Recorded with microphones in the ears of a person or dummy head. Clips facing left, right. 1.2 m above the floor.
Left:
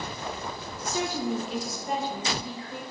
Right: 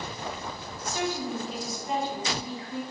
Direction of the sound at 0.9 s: 60° left (ahead or behind).